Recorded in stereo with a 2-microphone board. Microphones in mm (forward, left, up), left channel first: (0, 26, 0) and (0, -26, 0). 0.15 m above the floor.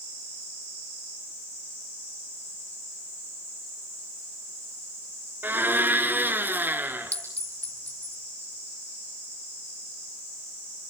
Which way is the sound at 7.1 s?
30° left (ahead or behind).